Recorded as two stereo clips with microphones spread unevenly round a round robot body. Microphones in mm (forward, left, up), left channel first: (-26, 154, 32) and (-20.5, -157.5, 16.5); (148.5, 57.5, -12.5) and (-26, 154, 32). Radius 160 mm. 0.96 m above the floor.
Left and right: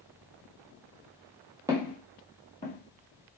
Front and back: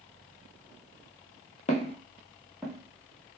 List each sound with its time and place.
1.7 s footsteps: 20° right, 1.0 m; by 3.4 s 110° left, 1.3 m